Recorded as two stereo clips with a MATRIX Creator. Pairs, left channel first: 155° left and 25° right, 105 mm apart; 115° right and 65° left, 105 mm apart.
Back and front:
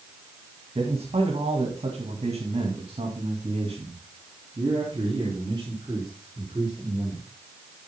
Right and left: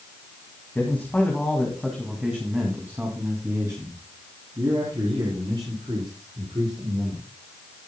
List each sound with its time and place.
0.8 s a man speaking: 40° right, 2.5 m; by 7.2 s 30° left, 4.5 m